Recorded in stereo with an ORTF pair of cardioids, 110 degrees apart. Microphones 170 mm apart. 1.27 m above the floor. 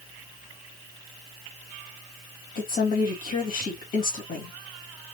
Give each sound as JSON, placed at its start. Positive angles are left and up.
{"t": 2.5, "sound": "a woman speaking", "azimuth_deg": 55, "distance_m": 2.5}